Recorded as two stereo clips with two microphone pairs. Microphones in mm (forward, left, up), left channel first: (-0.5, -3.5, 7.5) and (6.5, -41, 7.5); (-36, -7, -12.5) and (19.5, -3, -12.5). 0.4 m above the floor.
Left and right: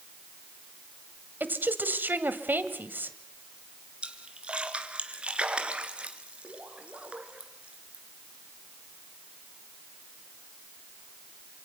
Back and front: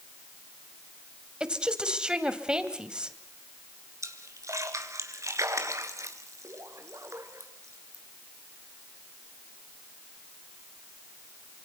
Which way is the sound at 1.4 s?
65° right.